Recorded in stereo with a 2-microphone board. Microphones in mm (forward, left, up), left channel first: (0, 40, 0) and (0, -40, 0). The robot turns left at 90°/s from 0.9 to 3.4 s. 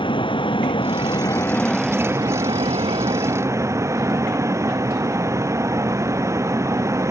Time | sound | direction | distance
0.0 | a vehicle | 80° left | ?